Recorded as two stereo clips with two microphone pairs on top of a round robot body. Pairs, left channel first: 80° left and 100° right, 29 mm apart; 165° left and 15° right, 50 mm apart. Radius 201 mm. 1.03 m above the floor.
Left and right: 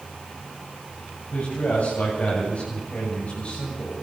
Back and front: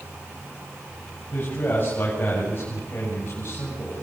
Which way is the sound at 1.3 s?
115° left.